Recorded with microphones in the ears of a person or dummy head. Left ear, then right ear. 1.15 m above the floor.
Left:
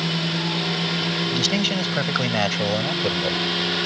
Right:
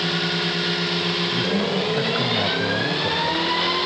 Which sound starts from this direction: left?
A man speaking, at 1.3 s.